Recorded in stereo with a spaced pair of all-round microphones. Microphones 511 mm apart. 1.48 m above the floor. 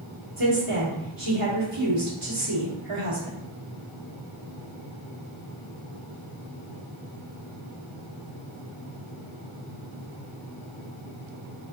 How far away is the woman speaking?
About 1.8 m.